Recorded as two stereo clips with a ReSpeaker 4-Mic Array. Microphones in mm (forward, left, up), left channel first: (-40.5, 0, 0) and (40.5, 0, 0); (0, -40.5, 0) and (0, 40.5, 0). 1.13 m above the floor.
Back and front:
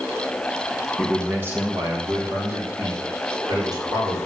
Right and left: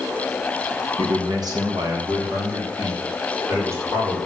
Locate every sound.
1.0 s a man speaking: 85° left, 1.1 m; by 4.2 s 35° left, 5 m